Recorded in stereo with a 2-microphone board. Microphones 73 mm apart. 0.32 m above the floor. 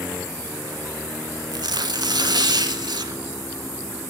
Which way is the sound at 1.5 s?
75° right (ahead or behind).